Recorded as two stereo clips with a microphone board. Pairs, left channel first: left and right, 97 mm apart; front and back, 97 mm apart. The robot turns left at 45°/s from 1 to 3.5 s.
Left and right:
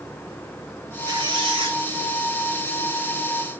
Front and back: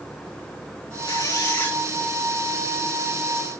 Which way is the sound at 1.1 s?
40° right.